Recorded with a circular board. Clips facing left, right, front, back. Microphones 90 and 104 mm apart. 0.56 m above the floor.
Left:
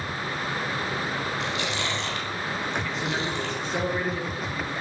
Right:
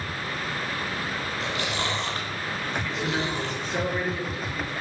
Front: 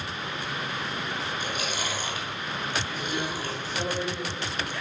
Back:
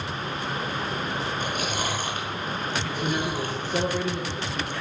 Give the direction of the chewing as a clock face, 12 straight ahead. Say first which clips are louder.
Even, back 3 dB; 5 o'clock.